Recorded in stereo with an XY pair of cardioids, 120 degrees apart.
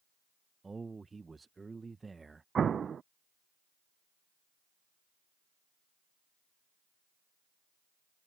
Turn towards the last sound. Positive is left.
turn(degrees=-40)